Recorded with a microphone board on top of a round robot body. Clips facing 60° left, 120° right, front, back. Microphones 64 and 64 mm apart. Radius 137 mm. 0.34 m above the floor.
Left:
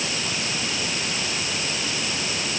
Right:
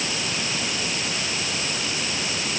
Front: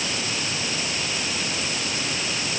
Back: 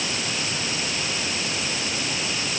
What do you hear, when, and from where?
Only background noise.